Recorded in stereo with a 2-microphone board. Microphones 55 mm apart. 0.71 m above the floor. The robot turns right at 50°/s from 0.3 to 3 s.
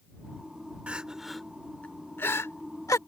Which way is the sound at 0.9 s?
25° right (ahead or behind).